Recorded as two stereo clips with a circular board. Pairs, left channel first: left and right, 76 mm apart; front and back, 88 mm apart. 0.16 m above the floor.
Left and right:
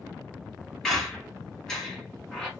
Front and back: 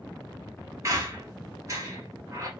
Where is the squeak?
170° left, 1.0 m.